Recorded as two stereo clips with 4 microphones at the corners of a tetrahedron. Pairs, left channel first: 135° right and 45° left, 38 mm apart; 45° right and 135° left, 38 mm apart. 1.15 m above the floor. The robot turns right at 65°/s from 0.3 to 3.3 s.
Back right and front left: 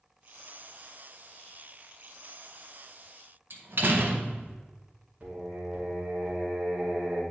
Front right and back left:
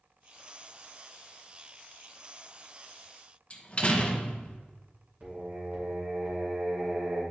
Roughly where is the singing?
Left.